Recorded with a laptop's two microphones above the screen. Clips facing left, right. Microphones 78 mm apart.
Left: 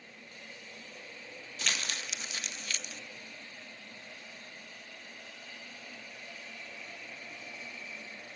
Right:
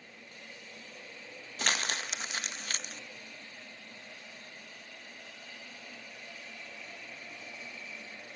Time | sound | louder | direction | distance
1.6 | crumpling | right 4 dB | 45° right (ahead or behind) | 1.0 m